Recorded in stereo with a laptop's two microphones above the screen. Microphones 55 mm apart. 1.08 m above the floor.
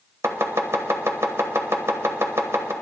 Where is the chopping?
60° right (ahead or behind), 1.3 m.